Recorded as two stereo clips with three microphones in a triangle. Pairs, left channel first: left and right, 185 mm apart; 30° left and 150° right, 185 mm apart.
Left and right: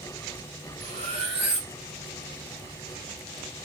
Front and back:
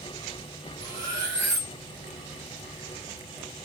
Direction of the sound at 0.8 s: 150° right.